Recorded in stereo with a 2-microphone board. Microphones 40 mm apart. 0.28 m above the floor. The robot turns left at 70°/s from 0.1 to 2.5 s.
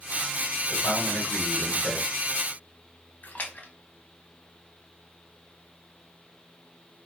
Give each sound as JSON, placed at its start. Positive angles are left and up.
{"t": 0.7, "sound": "a man speaking", "azimuth_deg": 120, "distance_m": 1.5}
{"t": 3.2, "sound": "a splash", "side_deg": 45, "distance_m": 0.6}